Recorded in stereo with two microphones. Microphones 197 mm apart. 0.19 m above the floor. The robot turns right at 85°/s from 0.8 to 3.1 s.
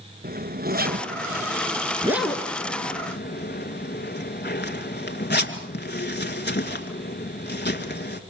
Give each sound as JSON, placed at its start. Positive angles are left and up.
{"t": 0.2, "sound": "a zipper", "side_deg": -50, "distance_m": 2.5}